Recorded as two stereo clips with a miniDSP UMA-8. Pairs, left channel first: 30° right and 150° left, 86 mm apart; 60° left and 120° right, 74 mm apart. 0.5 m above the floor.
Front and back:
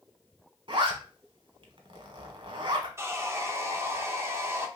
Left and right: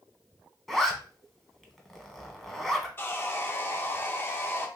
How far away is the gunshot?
No gunshot in this recording.